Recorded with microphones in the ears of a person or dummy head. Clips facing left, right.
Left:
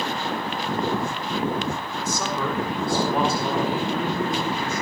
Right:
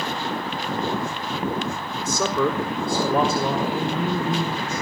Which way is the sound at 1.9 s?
75° right (ahead or behind).